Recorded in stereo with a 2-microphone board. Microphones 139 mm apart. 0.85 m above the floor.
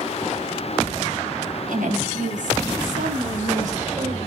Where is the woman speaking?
85° right, 5.5 m; by 4.3 s 75° right (ahead or behind), 2.5 m.